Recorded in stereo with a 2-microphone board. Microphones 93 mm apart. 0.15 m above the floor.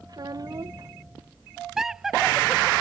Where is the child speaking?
50° right (ahead or behind).